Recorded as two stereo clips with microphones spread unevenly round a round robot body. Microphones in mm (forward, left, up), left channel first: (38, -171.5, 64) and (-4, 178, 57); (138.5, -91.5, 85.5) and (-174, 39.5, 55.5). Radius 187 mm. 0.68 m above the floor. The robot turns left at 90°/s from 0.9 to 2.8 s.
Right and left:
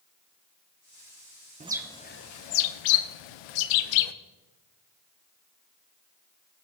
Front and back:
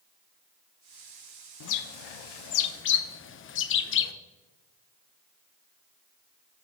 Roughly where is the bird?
Ahead left.